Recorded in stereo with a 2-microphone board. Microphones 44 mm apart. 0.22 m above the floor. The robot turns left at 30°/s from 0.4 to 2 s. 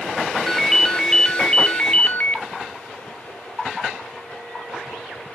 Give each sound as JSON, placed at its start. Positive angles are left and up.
{"t": 0.5, "sound": "a ringtone", "azimuth_deg": 175, "distance_m": 0.8}